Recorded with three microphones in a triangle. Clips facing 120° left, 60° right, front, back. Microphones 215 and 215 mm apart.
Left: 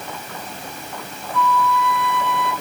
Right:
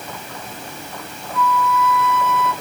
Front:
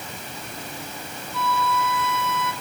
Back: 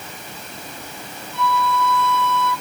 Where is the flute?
60° left, 2.5 m.